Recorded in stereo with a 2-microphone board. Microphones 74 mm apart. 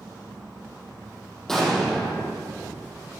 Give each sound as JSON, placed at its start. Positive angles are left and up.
{"t": 1.5, "sound": "an explosion", "side_deg": 5, "distance_m": 4.5}